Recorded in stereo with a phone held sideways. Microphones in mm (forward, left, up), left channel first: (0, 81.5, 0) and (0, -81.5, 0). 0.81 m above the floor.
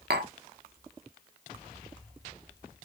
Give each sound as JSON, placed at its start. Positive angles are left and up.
{"t": 0.1, "sound": "tapping", "side_deg": -85, "distance_m": 0.7}